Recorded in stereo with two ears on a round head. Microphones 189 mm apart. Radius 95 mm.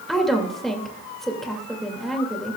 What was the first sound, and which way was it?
A woman speaking, centre (ahead or behind).